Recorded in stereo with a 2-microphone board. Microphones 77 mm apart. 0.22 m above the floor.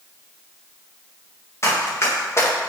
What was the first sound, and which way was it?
Running footsteps, 35° left (ahead or behind).